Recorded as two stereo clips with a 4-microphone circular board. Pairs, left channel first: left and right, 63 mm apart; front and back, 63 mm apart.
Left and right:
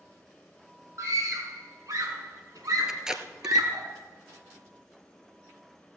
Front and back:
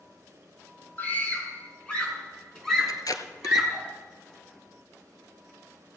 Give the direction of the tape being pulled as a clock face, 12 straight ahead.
12 o'clock.